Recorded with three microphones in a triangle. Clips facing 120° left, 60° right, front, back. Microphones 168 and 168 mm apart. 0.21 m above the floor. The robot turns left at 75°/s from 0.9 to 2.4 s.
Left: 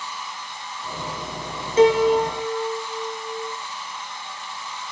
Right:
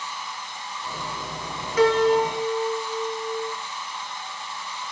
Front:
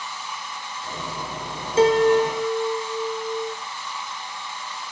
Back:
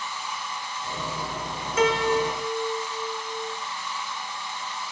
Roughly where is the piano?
Ahead left.